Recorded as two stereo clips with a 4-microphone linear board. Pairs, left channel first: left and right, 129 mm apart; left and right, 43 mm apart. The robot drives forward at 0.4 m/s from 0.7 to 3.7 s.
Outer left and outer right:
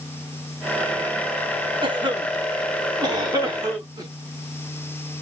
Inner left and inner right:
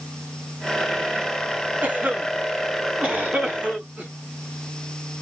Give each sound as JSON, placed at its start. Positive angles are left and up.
{"t": 1.8, "sound": "a cough", "side_deg": -40, "distance_m": 3.0}